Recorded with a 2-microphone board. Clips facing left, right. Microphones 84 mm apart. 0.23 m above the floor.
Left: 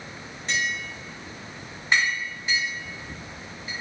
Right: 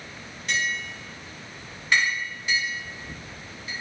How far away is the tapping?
About 1.8 m.